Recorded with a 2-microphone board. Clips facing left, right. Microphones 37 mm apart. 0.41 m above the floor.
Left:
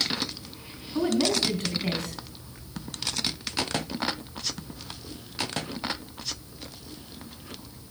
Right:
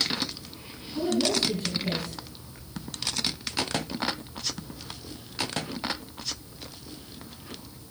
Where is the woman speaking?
60° left (ahead or behind), 3.5 m.